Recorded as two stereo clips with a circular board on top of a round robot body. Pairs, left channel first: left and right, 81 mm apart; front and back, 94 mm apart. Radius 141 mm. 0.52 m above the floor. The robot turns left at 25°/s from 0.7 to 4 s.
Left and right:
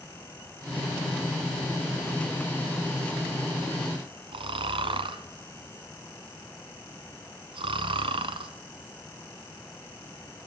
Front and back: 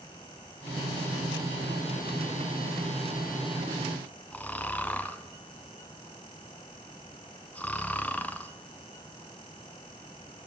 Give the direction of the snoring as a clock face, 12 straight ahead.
3 o'clock.